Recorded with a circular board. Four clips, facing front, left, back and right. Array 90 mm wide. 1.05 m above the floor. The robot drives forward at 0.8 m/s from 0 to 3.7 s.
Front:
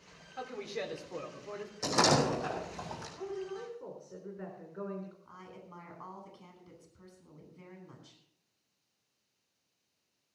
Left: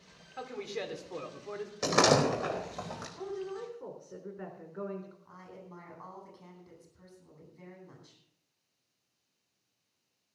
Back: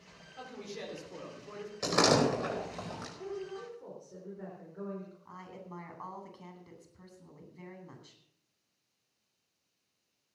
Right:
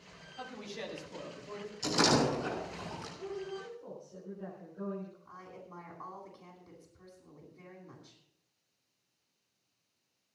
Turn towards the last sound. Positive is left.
turn(degrees=175)